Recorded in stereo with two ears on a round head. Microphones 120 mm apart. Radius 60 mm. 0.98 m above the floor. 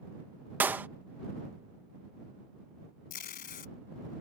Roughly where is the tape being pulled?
Left.